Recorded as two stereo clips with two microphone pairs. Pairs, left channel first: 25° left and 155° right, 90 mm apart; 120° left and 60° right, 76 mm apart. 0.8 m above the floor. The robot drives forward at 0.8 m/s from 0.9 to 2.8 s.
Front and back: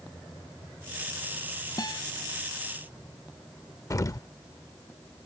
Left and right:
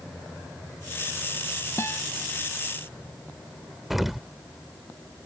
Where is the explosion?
25° left.